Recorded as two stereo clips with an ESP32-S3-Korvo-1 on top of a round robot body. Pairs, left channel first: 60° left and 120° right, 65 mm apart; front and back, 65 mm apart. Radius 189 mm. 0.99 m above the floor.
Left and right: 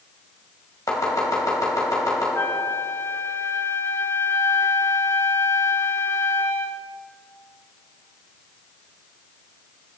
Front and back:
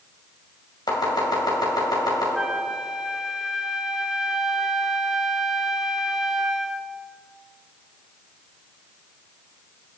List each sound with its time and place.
0.9 s chopping: 20° left, 2.5 m
2.4 s a flute: 100° left, 1.0 m